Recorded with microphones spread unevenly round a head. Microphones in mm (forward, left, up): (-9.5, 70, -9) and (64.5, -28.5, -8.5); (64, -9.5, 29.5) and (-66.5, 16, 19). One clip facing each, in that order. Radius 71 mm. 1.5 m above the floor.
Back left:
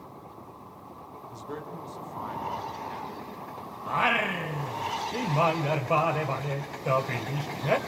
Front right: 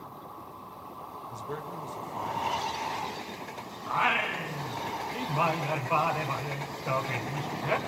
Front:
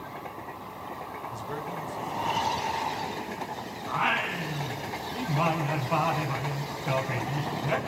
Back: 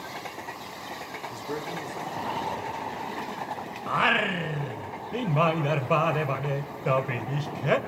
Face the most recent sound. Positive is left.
turn(degrees=-175)